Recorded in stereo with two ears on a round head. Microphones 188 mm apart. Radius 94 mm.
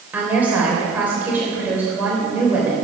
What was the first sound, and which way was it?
A woman speaking, 10° right (ahead or behind).